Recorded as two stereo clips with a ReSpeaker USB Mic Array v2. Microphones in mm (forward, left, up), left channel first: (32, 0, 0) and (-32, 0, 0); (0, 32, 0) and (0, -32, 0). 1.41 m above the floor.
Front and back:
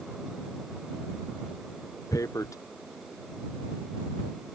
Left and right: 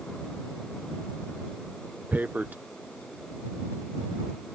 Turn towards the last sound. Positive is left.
turn(degrees=-30)